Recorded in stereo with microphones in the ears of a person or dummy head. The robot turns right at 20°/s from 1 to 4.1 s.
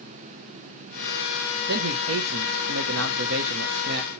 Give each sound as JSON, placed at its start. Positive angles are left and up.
{"t": 1.7, "sound": "a man speaking", "azimuth_deg": -115, "distance_m": 0.8}